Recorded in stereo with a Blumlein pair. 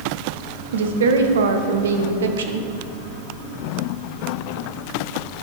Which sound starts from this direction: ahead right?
A woman speaking, at 0.7 s.